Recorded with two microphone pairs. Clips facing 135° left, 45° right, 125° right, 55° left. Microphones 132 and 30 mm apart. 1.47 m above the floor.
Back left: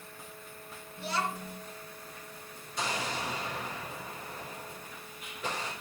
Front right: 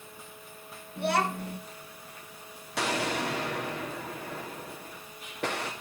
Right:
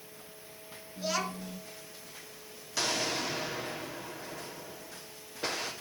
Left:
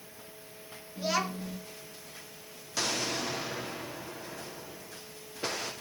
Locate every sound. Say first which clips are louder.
1.0 s a child speaking: front right 6 dB, left 2 dB; 30° right, 1.6 m
2.8 s an explosion: front right 5 dB, even; 35° right, 3 m